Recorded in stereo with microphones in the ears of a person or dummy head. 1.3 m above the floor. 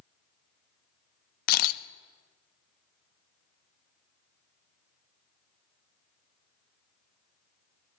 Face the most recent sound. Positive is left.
turn(degrees=55)  # may be behind; listen again after turning